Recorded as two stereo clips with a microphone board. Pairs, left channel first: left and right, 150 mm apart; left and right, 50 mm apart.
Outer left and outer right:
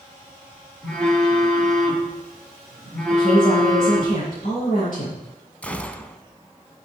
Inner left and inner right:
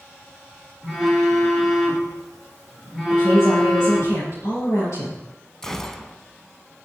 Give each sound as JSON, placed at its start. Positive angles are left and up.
{"t": 0.8, "sound": "a phone buzzing", "side_deg": 5, "distance_m": 4.5}
{"t": 3.1, "sound": "a woman speaking", "side_deg": 65, "distance_m": 6.0}
{"t": 5.6, "sound": "a gunshot", "side_deg": 10, "distance_m": 0.8}